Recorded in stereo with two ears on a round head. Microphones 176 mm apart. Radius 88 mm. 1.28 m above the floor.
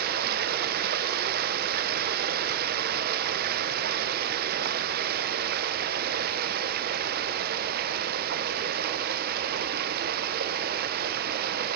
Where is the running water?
50° right (ahead or behind), 0.7 m.